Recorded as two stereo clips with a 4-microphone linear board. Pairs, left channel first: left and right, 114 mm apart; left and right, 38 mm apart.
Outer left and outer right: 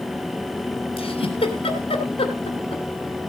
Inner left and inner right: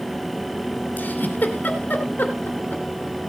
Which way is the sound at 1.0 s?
60° left (ahead or behind).